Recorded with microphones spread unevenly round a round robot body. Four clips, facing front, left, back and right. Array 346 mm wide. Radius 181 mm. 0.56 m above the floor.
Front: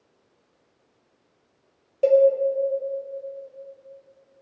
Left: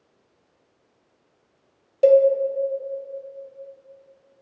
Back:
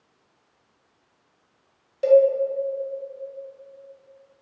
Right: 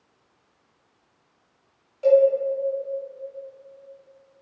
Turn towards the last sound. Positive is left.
turn(degrees=70)